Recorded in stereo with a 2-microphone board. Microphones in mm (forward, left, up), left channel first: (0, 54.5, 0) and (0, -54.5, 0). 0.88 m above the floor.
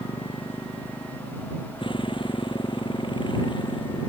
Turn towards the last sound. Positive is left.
turn(degrees=45)  # may be behind; listen again after turning